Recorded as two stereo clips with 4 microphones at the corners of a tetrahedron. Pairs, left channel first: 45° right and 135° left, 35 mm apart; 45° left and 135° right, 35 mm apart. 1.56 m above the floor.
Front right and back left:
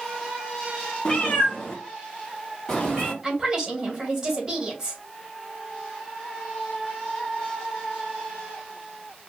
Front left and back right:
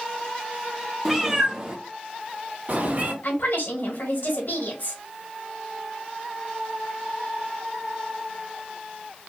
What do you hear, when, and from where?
1.1 s a cat meowing: 55° right, 1.0 m; by 3.1 s 120° right, 1.7 m
3.2 s a woman speaking: 60° left, 2 m